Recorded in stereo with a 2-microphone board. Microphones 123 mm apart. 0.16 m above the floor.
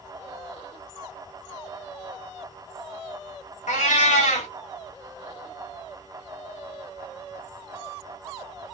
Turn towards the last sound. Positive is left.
turn(degrees=90)